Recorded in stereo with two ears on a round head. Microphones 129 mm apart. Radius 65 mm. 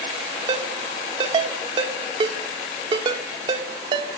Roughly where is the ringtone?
Right.